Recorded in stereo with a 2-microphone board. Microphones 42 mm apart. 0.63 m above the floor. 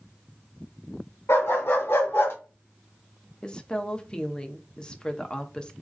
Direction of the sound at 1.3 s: 85° left.